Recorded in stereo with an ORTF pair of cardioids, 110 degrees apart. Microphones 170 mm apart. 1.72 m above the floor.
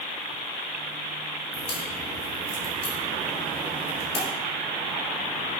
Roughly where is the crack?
Ahead left.